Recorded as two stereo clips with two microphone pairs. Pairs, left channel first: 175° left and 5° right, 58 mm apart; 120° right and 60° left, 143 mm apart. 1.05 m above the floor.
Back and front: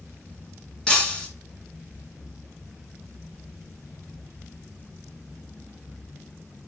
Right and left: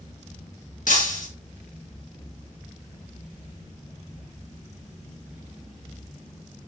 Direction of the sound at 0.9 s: 115° right.